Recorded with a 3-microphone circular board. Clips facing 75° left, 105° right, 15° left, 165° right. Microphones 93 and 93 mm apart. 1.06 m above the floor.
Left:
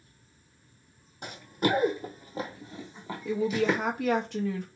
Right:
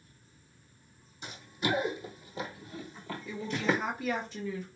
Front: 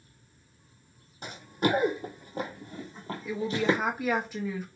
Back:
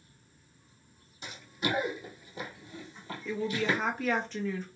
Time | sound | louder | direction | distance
1.2 | running footsteps | left 5 dB, front 6 dB | 50° left | 2 m
3.2 | a woman speaking | left 5 dB, front 3 dB | 95° left | 1.4 m